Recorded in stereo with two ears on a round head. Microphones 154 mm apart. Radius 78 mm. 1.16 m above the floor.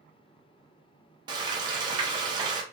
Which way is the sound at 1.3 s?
25° right (ahead or behind).